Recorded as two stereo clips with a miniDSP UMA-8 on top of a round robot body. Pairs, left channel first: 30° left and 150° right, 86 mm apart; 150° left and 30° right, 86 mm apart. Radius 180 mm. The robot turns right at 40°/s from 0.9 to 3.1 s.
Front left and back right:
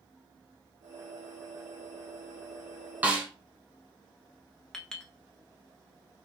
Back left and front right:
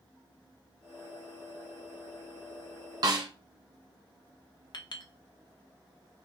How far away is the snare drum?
About 0.7 m.